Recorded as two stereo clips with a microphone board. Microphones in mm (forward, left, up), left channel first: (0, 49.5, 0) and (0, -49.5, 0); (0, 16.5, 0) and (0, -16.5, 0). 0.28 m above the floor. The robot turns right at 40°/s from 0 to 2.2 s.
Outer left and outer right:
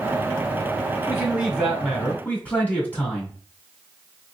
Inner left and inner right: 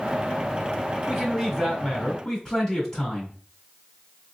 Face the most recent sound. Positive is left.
turn(degrees=15)